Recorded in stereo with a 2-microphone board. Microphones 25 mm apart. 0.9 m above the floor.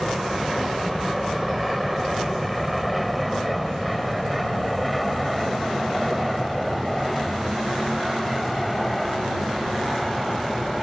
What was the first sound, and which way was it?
An aircraft, centre (ahead or behind).